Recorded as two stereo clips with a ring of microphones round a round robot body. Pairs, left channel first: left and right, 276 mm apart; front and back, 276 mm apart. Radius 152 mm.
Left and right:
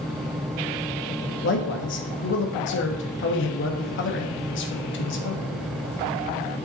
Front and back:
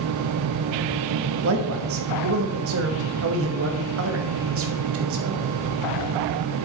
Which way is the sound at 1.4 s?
140° left.